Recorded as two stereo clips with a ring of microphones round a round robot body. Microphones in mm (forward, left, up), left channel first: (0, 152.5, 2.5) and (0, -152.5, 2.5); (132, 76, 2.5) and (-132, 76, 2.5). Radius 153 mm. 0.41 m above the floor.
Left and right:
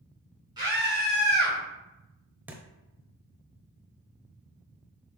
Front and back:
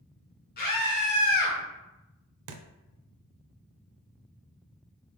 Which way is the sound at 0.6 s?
25° right.